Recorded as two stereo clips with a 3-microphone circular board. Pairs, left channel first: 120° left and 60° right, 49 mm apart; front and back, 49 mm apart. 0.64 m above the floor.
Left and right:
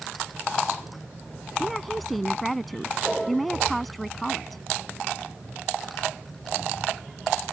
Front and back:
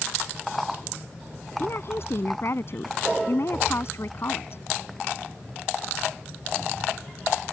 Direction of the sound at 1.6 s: 35° left.